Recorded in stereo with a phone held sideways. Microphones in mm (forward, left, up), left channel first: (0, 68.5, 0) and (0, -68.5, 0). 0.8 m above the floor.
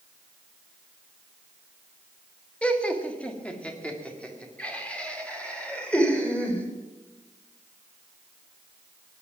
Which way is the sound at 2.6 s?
10° left (ahead or behind).